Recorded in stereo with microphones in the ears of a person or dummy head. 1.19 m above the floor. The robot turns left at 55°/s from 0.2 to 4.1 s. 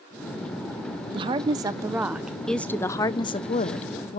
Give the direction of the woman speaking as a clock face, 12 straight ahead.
3 o'clock.